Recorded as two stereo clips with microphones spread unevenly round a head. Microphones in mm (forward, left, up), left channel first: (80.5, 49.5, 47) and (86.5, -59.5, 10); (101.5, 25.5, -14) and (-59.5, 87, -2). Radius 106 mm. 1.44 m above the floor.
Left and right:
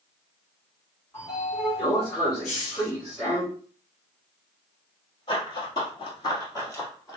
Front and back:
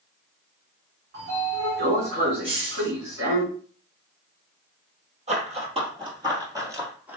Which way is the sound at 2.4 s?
100° left.